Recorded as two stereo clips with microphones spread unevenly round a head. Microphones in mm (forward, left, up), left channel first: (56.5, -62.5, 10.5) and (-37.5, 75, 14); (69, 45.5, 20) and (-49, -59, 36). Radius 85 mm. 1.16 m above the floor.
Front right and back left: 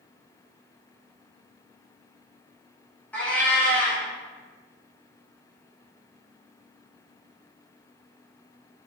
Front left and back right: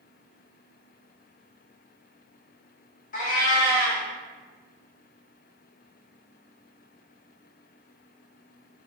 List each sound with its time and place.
3.1 s a cat meowing: 20° left, 1.0 m